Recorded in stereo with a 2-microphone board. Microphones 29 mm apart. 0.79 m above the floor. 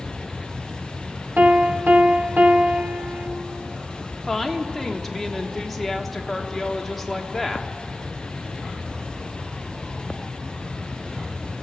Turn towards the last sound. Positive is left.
turn(degrees=5)  # may be behind; listen again after turning